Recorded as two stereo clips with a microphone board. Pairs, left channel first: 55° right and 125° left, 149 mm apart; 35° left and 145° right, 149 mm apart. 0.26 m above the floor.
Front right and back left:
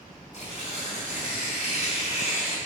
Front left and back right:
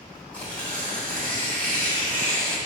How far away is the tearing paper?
About 2.5 m.